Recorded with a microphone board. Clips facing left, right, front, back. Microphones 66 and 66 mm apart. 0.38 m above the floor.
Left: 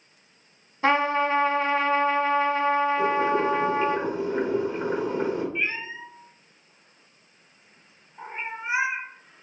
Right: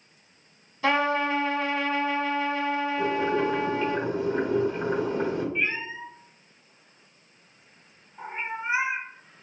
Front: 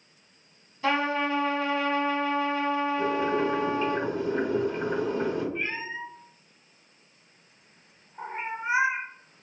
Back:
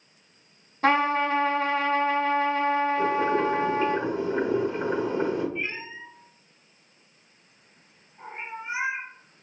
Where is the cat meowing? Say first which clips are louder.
Right 1 dB, front 1 dB; 5° left, 0.7 m.